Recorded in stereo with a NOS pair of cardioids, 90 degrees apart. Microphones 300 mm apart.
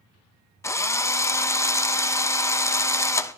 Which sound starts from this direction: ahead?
A drill, at 0.6 s.